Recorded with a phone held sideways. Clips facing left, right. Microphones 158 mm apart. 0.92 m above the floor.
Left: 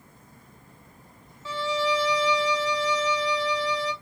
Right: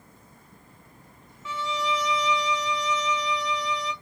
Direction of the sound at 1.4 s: 35° left (ahead or behind).